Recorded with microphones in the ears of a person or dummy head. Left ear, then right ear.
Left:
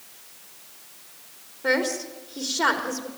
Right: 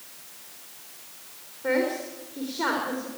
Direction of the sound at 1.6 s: 80° left.